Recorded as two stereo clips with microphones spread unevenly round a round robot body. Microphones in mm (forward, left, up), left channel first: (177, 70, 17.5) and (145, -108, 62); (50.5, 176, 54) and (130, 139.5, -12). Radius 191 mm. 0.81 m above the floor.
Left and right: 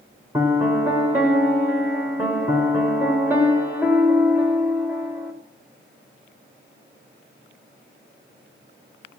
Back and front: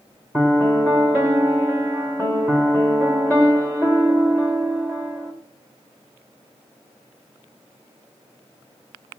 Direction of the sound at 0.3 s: 165° right.